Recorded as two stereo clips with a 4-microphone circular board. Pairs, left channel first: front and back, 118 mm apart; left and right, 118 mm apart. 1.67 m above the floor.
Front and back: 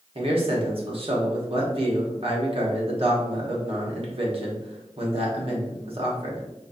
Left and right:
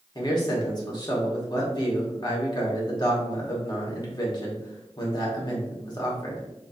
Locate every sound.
0.1 s a man speaking: 145° left, 1.1 m